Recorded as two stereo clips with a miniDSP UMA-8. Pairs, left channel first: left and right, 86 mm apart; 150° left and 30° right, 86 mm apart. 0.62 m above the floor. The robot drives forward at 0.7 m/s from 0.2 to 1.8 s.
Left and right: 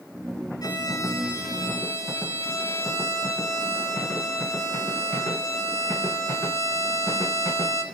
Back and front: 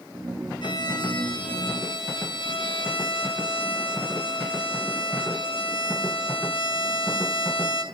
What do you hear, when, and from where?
0.6 s a violin: 130° left, 2.5 m; by 7.8 s 145° left, 3 m